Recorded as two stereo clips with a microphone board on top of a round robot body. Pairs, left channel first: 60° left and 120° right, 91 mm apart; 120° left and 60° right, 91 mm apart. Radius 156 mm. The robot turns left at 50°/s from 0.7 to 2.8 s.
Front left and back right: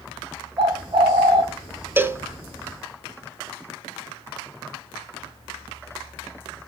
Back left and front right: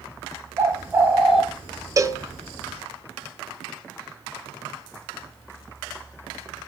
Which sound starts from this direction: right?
A cowbell, at 2.0 s.